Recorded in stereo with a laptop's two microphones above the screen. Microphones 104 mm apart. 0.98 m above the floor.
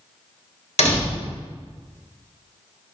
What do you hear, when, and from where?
0.8 s a door slam: 80° left, 2 m